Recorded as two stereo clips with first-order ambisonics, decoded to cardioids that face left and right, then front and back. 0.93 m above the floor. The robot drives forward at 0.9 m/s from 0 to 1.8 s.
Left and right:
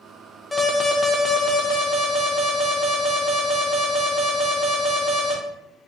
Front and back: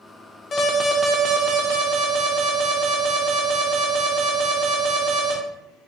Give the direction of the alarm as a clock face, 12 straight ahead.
12 o'clock.